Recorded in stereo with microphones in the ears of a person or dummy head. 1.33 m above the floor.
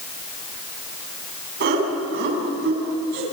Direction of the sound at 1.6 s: 55° right (ahead or behind).